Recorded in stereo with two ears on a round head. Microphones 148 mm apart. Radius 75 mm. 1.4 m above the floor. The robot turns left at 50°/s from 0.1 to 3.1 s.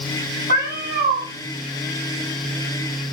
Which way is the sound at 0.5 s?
80° right.